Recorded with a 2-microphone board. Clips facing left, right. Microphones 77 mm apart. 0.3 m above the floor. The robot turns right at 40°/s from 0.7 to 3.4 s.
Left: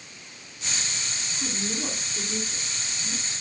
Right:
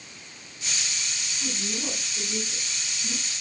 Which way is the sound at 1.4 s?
30° left (ahead or behind).